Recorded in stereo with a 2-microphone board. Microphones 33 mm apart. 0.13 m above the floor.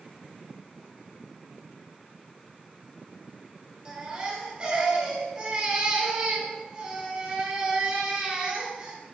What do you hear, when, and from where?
3.9 s a baby crying: 35° right (ahead or behind), 2.0 m